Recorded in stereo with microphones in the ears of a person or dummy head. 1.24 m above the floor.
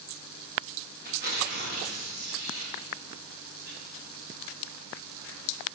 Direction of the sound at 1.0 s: 55° right (ahead or behind).